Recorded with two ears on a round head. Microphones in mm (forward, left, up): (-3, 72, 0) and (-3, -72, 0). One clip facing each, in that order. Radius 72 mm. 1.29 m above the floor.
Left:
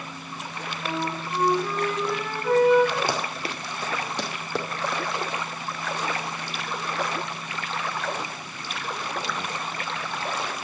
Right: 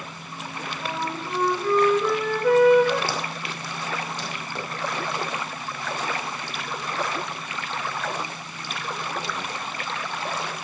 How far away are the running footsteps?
About 1.4 m.